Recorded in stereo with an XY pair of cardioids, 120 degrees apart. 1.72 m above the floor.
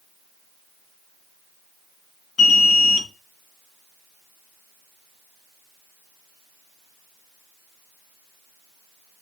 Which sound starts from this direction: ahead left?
An alarm, at 2.4 s.